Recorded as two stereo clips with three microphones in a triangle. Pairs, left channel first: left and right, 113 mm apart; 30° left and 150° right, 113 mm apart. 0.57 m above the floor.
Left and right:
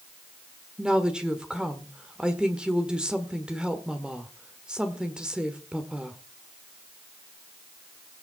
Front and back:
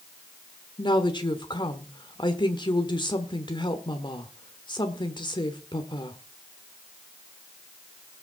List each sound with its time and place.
0.8 s a woman speaking: 10° right, 1.5 m